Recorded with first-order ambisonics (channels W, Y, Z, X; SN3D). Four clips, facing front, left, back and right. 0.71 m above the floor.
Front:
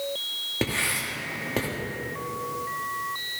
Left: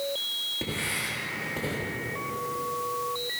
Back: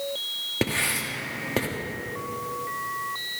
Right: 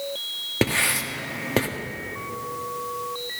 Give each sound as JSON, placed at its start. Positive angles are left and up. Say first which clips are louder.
{"t": 0.6, "sound": "writing", "louder": "right 8 dB, back 1 dB", "azimuth_deg": -100, "distance_m": 1.3}